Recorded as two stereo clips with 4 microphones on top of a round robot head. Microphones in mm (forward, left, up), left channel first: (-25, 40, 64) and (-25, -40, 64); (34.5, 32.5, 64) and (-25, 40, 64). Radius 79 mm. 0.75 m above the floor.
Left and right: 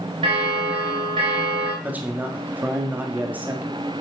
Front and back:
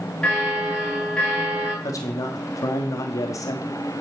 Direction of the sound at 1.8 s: 20° right.